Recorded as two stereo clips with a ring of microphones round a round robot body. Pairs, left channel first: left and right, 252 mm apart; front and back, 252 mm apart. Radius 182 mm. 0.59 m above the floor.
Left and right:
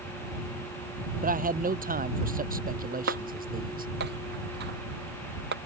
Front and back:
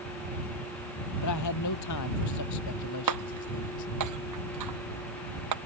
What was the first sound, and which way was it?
A man speaking, 35° right.